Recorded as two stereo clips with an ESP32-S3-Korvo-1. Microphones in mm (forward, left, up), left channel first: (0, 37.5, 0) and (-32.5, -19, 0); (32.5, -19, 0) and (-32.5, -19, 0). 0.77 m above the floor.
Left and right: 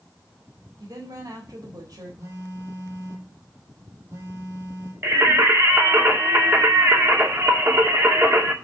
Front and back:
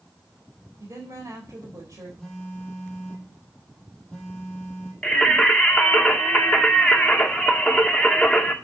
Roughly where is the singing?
Right.